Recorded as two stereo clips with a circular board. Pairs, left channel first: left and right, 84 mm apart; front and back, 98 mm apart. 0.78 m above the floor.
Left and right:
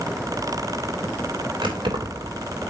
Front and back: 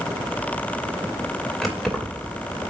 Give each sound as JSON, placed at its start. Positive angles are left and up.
{"t": 1.6, "sound": "keys jangling", "azimuth_deg": -90, "distance_m": 2.5}